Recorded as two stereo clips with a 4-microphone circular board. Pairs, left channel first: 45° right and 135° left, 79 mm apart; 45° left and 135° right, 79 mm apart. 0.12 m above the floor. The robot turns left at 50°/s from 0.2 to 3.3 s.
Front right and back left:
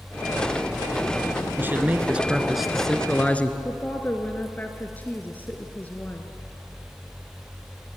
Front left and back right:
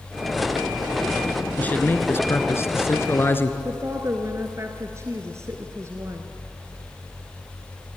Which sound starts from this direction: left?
A man speaking, at 1.6 s.